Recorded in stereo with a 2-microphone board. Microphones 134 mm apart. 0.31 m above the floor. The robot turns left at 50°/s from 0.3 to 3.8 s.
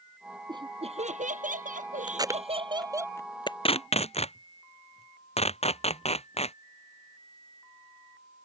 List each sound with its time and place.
0.5 s laughter: 30° right; by 3.1 s 160° right
2.1 s tape being pulled: 35° right (ahead or behind); by 6.5 s 50° left (ahead or behind)